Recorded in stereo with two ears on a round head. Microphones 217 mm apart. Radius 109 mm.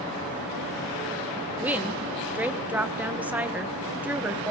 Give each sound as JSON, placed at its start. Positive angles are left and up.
{"t": 1.6, "sound": "a woman speaking", "side_deg": -5, "distance_m": 1.1}